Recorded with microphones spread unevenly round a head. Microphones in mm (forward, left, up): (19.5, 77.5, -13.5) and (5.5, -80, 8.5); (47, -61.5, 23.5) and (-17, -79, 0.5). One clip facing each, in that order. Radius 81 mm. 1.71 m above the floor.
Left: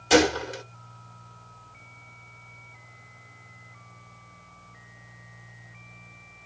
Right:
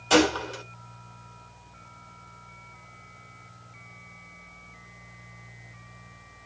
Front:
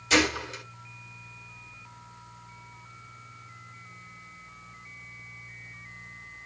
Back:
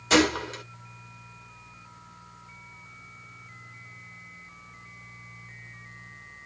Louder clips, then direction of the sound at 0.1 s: Left 1 dB, back 3 dB; 150° left.